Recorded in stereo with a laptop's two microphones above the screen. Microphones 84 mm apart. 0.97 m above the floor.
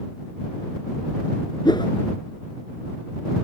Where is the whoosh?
60° left (ahead or behind).